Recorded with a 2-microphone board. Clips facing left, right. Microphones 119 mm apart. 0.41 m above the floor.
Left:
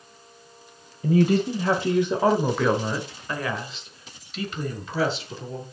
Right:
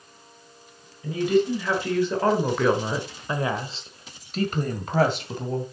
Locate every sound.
1.0 s a woman speaking: 45° left (ahead or behind), 1.5 m; by 5.6 s 55° right (ahead or behind), 2.5 m